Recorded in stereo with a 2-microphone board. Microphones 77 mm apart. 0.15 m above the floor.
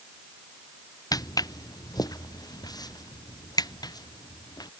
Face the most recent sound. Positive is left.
turn(degrees=55)  # may be behind; listen again after turning